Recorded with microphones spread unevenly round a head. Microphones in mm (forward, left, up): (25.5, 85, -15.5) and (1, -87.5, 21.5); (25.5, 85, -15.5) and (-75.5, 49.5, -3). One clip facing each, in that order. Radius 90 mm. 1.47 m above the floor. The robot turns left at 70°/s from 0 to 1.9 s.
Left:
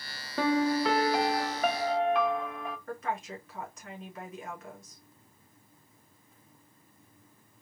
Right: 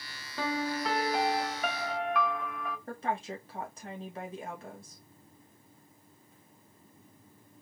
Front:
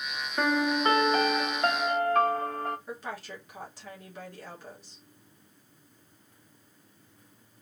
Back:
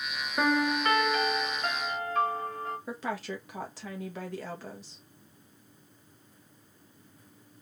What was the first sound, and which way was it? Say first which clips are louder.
A piano: left 7 dB, front 1 dB; 120° left.